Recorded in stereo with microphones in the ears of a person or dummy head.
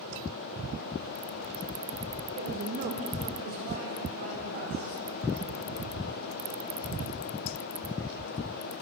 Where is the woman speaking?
40° right (ahead or behind), 1.2 m; by 4.9 s 45° right (ahead or behind), 5 m.